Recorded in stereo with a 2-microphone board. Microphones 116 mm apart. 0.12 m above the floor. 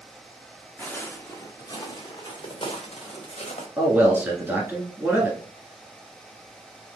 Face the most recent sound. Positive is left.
turn(degrees=-15)  # may be behind; listen again after turning